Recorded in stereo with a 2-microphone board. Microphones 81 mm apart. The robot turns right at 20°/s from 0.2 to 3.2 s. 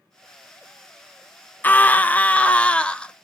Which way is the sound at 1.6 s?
20° left (ahead or behind).